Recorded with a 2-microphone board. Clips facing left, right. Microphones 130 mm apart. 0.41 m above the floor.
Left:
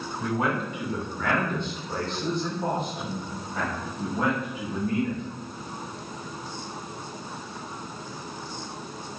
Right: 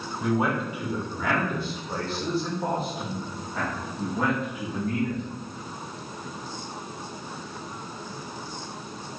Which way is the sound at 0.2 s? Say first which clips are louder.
Right 2 dB; 5° right (ahead or behind).